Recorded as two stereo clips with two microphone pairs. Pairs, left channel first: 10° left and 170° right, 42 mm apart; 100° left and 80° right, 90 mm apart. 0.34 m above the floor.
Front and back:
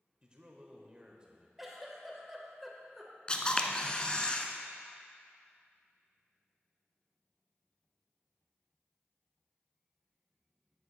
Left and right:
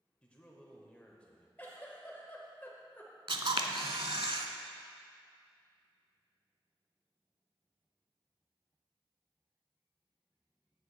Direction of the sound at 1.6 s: 105° left.